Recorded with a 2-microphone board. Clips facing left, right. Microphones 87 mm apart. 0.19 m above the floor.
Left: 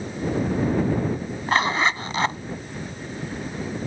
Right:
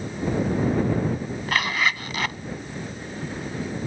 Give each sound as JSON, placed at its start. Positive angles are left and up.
{"t": 1.5, "sound": "a zipper", "side_deg": 30}